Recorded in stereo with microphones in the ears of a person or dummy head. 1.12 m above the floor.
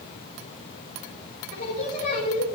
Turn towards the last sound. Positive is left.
turn(degrees=50)  # may be behind; listen again after turning